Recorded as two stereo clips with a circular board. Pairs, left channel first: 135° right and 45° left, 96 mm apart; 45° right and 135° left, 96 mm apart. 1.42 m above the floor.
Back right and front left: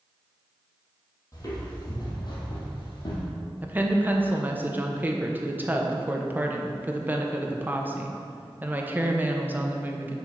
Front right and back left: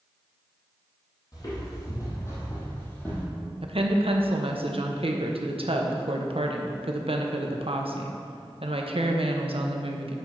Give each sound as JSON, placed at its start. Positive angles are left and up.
{"t": 1.3, "sound": "footsteps", "azimuth_deg": -85, "distance_m": 3.0}
{"t": 3.6, "sound": "a woman speaking", "azimuth_deg": 115, "distance_m": 0.9}